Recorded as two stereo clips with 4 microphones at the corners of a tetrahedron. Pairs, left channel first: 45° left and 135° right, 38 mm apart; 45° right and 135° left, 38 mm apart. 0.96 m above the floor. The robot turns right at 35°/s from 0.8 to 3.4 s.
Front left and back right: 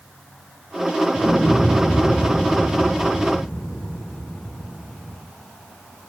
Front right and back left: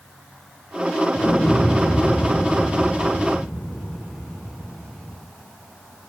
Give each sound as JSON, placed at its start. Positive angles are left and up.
{"t": 1.1, "sound": "an explosion", "azimuth_deg": -80, "distance_m": 8.5}